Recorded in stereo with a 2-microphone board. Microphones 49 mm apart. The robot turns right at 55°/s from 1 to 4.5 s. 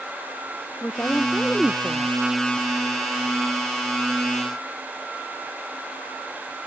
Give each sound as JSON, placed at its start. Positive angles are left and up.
{"t": 0.8, "sound": "a woman speaking", "azimuth_deg": 140}